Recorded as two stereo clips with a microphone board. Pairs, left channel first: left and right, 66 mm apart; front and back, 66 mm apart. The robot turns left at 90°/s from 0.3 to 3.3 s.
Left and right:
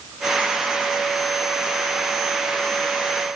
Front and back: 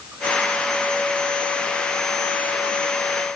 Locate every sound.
Only background noise.